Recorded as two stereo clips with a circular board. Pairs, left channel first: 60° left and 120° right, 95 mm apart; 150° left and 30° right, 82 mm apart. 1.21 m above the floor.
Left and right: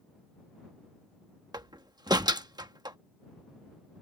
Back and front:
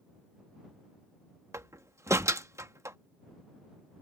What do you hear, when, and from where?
1.5 s a door slam: 80° right